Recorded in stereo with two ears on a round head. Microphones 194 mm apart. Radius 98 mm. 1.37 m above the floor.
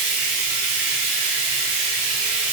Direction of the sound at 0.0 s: 75° right (ahead or behind).